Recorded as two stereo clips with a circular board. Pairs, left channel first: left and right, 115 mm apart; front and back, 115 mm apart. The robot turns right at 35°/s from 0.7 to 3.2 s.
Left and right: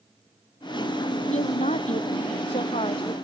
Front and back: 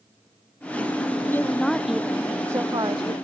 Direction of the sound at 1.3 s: 70° left.